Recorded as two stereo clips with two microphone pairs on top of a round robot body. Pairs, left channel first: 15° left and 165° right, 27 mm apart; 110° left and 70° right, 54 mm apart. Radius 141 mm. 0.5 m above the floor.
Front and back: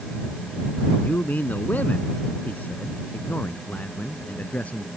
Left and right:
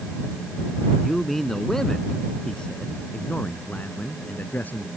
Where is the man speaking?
20° left; by 4.9 s 50° left.